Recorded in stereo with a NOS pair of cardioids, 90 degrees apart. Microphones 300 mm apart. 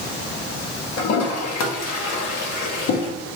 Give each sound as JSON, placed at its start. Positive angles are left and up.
{"t": 1.0, "sound": "a toilet flushing", "azimuth_deg": 65, "distance_m": 1.0}